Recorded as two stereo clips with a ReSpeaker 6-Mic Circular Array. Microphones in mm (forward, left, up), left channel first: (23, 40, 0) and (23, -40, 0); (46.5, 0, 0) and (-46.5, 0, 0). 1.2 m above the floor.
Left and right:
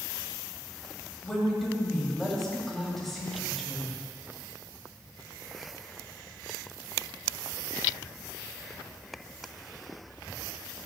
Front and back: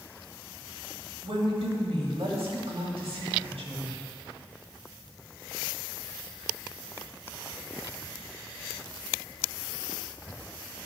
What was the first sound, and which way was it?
A woman speaking, 175° left.